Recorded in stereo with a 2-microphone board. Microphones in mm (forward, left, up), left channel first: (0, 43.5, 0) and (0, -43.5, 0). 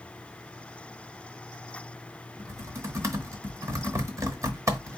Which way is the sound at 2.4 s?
35° right (ahead or behind).